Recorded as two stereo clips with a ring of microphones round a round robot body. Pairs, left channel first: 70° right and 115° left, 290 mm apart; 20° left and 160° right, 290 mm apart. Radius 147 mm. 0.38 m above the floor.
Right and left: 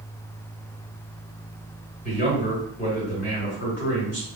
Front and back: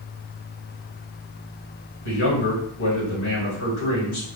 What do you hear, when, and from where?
2.0 s a man speaking: 15° right, 1.9 m